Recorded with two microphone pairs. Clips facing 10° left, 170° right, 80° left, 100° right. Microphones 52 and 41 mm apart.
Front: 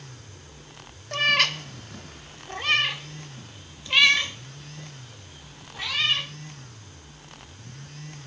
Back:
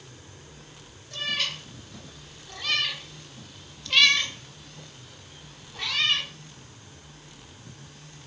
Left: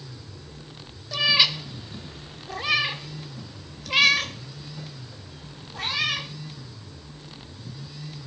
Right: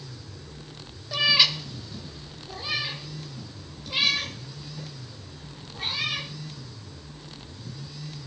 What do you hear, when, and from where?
1.1 s a cat meowing: 15° right, 1.0 m; by 6.3 s 95° left, 4 m